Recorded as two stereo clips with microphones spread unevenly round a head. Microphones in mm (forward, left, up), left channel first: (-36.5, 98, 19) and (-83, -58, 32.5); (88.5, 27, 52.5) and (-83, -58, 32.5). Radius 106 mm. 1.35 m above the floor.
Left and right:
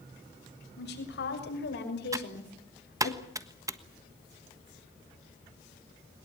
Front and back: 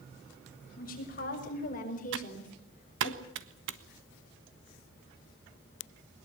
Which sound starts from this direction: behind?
Typing on a keyboard, at 2.1 s.